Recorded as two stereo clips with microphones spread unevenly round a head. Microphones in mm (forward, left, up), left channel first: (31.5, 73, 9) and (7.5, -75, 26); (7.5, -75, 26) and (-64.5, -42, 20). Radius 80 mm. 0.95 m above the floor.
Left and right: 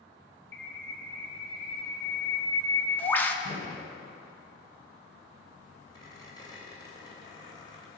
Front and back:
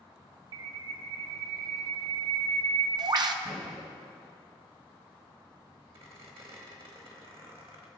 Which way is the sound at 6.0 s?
150° left.